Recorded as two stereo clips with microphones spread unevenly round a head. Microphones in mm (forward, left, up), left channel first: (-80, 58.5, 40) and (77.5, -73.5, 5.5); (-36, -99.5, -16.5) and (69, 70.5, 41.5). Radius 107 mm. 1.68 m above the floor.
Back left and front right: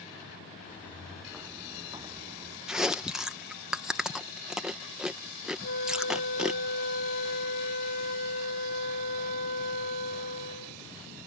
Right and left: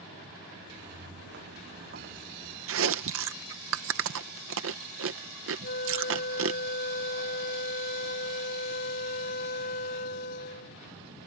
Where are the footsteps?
65° left; by 2.6 s 20° left.